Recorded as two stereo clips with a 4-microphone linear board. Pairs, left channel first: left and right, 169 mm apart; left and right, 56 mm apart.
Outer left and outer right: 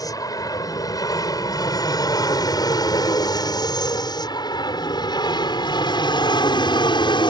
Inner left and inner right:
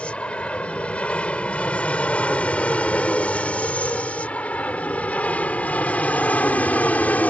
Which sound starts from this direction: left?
An aircraft, at 0.0 s.